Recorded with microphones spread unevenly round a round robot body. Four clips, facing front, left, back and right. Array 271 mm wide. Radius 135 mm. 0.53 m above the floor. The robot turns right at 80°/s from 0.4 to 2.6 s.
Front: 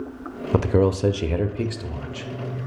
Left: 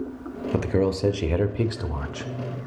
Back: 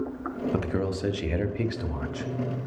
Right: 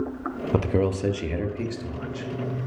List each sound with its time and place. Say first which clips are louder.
0.5 s a man speaking: left 1 dB, front 12 dB; 15° right, 0.8 m; by 2.3 s 130° left, 0.8 m